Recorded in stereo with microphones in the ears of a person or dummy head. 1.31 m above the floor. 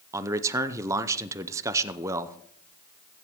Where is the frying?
No frying in this recording.